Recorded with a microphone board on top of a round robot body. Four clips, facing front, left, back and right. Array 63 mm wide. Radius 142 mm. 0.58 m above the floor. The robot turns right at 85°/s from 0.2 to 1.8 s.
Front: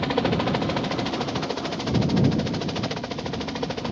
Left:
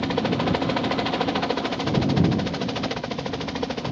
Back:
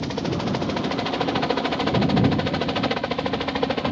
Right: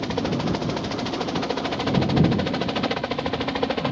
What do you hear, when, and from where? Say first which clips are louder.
0.0 s a helicopter: left 2 dB, front 3 dB; 25° left; by 3.9 s 140° right